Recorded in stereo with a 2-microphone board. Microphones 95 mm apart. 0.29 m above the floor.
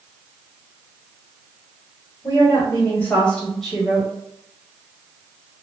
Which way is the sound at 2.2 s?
35° left (ahead or behind).